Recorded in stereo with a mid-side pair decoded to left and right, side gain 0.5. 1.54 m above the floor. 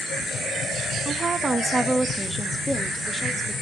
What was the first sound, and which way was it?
A woman speaking, 40° right.